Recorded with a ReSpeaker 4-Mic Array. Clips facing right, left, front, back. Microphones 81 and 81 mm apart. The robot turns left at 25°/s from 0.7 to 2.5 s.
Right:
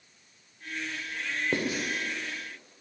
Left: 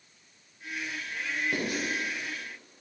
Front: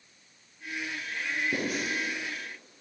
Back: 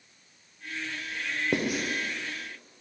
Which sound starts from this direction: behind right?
Writing, at 1.5 s.